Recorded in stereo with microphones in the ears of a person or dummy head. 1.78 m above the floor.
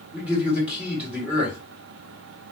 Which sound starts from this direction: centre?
A man speaking, at 0.1 s.